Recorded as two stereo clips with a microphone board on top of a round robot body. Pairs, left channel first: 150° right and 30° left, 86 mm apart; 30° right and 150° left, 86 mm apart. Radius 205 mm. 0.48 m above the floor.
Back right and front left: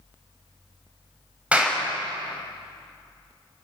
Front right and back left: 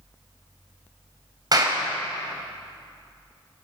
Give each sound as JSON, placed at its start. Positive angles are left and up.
{"t": 1.5, "sound": "a clap", "azimuth_deg": 105, "distance_m": 4.0}